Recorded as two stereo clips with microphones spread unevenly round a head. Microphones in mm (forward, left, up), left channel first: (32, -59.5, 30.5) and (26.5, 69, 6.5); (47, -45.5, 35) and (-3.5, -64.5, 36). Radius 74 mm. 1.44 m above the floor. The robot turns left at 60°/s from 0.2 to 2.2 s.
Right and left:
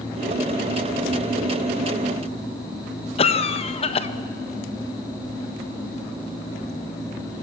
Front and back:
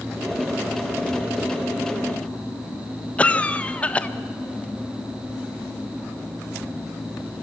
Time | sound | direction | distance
3.2 | a cough | 45° right | 1.5 m